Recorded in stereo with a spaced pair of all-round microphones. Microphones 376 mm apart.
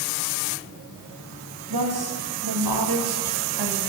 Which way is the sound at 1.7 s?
70° right (ahead or behind).